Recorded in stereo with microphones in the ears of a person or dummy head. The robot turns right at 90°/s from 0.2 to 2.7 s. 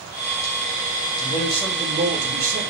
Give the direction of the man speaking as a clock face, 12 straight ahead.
8 o'clock.